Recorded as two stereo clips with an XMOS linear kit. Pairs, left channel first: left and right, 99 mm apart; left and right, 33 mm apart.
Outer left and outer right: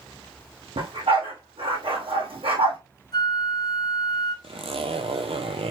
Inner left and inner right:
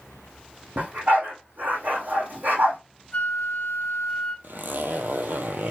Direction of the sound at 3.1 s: 45° left (ahead or behind).